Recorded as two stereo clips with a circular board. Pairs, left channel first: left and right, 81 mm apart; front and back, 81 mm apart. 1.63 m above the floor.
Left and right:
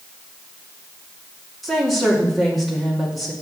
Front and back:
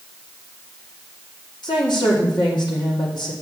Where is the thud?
I don't hear a thud.